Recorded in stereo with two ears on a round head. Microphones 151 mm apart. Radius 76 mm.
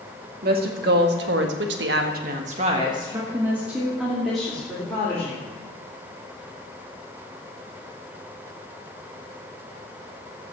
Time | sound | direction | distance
0.4 | a woman speaking | 60° right (ahead or behind) | 2.5 m